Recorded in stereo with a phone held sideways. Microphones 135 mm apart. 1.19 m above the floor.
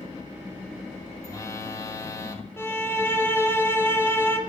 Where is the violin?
20° left (ahead or behind), 1.9 m.